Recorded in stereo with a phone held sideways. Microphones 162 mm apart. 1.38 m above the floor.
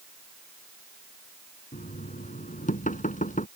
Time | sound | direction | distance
1.7 | knocking | 50° left (ahead or behind) | ?